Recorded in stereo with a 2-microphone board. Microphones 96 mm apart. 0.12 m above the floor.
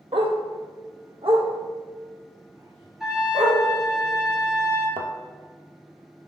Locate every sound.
0.1 s a dog barking: 70° right (ahead or behind), 0.9 m; by 3.6 s 60° right (ahead or behind), 3 m
3.0 s a trumpet: 5° right (ahead or behind), 2 m
5.0 s a thud: 65° right (ahead or behind), 0.8 m